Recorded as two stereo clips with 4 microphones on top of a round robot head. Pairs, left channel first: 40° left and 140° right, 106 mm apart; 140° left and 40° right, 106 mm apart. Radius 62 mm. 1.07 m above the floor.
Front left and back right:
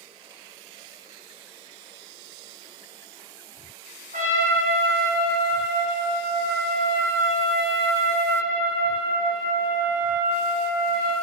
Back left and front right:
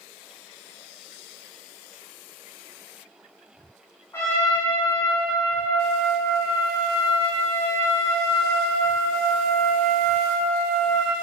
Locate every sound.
4.1 s a trumpet: 155° right, 5 m